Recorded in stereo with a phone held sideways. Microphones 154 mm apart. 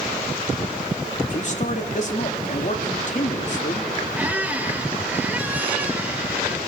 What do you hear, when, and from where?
1.3 s a man speaking: 50° left (ahead or behind), 3 m
4.2 s a squeak: 10° right (ahead or behind), 1.0 m